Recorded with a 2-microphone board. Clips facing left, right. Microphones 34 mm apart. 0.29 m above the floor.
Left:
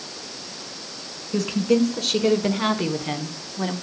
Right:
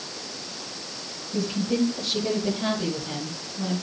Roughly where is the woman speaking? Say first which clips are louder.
Left 5 dB; left.